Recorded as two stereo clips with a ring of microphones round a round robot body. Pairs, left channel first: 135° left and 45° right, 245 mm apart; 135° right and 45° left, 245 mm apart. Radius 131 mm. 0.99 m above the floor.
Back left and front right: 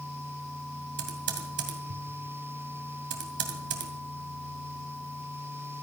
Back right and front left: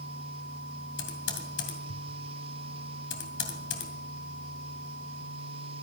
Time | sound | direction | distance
1.0 | typing on a keyboard | 90° right | 2.5 m